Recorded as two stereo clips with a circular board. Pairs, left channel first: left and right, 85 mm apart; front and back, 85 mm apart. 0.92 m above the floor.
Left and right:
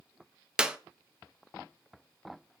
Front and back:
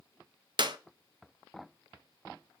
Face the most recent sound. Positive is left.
turn(degrees=-170)